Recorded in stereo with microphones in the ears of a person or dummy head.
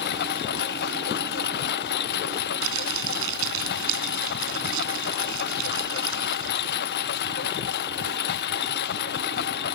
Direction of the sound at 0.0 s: 60° left (ahead or behind).